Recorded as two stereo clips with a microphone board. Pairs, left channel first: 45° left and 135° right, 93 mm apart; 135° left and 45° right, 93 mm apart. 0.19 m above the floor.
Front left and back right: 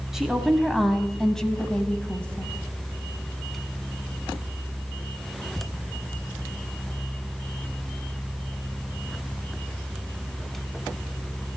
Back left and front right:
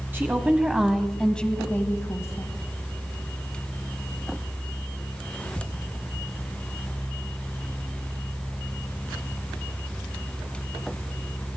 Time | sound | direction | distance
0.1 | a woman speaking | 60° right | 1.2 m